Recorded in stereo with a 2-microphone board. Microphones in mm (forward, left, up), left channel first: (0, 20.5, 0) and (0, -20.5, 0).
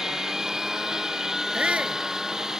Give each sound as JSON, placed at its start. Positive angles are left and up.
{"t": 0.0, "sound": "a lawn mower", "side_deg": -15}
{"t": 1.5, "sound": "a shout", "side_deg": -35}